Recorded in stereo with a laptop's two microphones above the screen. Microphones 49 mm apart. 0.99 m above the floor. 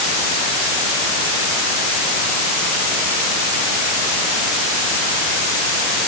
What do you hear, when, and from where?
Only background noise.